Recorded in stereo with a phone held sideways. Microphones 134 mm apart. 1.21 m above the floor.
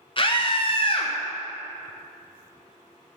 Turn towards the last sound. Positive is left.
turn(degrees=40)  # may be behind; listen again after turning